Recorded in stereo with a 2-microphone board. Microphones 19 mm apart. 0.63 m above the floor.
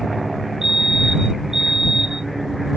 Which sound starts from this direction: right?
A fire alarm, at 0.6 s.